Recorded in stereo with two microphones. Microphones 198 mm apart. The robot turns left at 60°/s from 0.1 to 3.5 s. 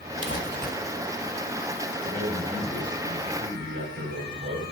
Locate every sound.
0.2 s crumpling: 80° left, 3.5 m; by 0.7 s 50° left, 3.5 m
2.0 s a man speaking: 20° left, 9 m; by 4.7 s 65° right, 9 m